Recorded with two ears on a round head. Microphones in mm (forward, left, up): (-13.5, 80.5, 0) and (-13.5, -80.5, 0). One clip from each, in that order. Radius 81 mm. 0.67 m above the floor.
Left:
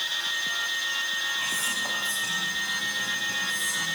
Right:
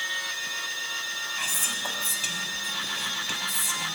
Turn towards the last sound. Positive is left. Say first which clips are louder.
# left 1 dB
turn(degrees=-45)  # may be behind; listen again after turning